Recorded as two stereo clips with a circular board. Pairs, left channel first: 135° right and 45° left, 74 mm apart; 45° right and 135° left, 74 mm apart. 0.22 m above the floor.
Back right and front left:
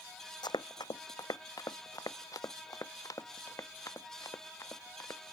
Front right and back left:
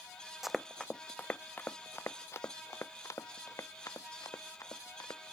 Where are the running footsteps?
140° right; by 5.2 s 85° right.